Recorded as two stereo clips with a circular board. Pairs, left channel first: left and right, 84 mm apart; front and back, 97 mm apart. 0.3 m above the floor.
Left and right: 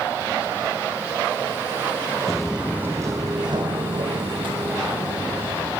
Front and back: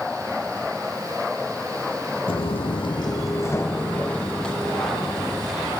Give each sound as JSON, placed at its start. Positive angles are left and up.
{"t": 2.3, "sound": "footsteps", "azimuth_deg": 5, "distance_m": 0.7}